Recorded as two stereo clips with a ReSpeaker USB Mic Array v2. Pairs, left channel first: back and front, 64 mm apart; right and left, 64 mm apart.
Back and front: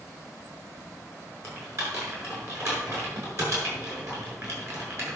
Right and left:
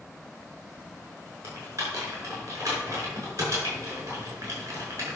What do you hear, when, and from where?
1.4 s typing on a keyboard: 45° left, 6 m